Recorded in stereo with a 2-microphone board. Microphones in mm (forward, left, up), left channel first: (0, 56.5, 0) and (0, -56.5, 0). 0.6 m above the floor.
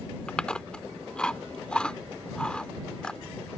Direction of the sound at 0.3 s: 10° left (ahead or behind).